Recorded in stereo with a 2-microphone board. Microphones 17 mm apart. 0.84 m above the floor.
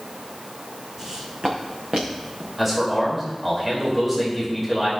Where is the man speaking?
15° right (ahead or behind), 3 m.